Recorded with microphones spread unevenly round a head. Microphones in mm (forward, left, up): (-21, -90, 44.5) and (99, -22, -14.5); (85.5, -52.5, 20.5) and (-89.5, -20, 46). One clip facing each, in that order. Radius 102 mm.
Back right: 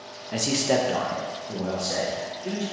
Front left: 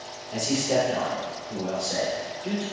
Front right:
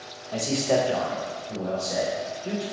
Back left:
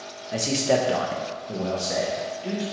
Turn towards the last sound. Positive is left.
turn(degrees=140)